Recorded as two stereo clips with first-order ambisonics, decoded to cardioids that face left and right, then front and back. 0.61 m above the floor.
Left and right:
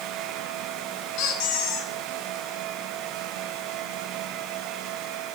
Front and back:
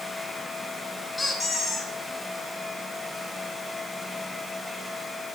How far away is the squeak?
About 1.5 m.